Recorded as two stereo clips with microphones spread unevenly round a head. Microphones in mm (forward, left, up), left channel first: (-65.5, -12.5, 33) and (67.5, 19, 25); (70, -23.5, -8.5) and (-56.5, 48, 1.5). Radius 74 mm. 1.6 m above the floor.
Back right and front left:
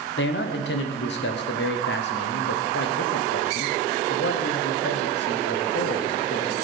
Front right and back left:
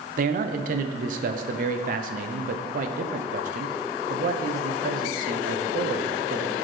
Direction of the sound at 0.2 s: 170° right.